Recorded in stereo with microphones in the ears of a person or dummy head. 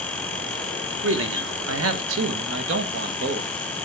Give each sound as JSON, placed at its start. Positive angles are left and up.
{"t": 1.0, "sound": "a man speaking", "side_deg": -65, "distance_m": 1.5}